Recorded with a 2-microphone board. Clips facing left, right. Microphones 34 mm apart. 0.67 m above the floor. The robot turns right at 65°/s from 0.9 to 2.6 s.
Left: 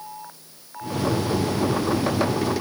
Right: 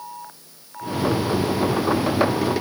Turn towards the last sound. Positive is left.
No sound to turn to.